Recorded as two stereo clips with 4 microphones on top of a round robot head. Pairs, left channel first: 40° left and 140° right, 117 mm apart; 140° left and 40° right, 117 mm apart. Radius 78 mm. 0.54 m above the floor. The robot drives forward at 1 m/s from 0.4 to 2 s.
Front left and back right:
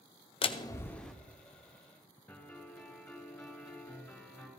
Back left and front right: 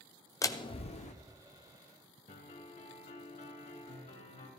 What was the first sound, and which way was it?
A door slam, 75° left.